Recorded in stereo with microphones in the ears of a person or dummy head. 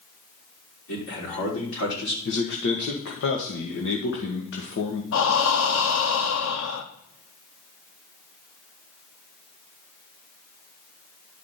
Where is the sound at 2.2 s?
60° left (ahead or behind), 1.5 m.